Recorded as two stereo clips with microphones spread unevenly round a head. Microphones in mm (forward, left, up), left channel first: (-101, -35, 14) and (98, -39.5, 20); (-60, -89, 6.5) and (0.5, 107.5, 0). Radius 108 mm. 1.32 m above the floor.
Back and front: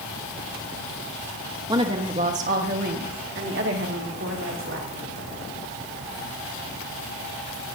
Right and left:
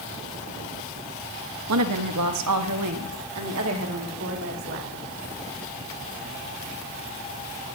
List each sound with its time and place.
1.7 s a woman speaking: 70° left, 1.5 m; by 4.9 s 35° left, 3.5 m